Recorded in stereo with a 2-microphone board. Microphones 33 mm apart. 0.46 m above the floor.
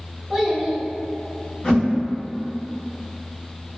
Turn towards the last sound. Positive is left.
turn(degrees=40)  # may be behind; listen again after turning